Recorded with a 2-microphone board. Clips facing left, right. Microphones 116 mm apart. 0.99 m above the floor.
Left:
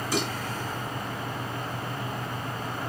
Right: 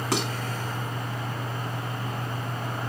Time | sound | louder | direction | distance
0.1 | dishes clattering | right 1 dB | 80° right | 6.5 m